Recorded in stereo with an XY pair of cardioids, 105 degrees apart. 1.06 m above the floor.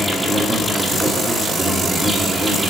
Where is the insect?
15° right, 2 m.